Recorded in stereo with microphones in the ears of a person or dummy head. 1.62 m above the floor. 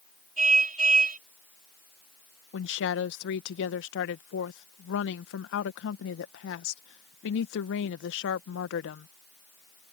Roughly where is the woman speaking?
Left.